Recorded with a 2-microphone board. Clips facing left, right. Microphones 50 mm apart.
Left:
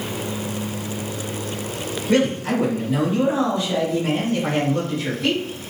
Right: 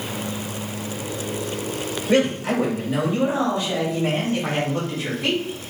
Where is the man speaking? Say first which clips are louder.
Even; 15° right (ahead or behind), 1.6 m.